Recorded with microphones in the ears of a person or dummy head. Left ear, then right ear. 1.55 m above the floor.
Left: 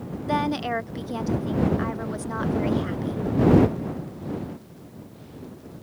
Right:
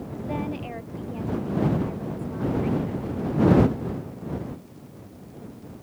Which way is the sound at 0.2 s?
65° left (ahead or behind).